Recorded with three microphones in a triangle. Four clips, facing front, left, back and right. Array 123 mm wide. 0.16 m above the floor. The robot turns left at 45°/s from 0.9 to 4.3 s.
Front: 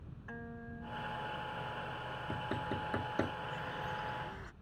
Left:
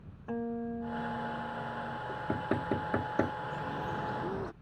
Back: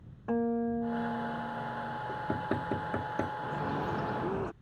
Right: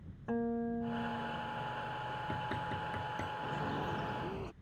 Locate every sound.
0.3 s a guitar: 175° right; by 2.0 s 135° left
2.1 s knocking: 145° left; by 3.3 s 90° left
3.4 s a bird: 160° right; by 4.5 s 160° left